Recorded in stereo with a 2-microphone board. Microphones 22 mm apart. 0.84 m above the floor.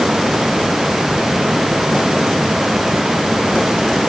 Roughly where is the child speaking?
No child speaking in this recording.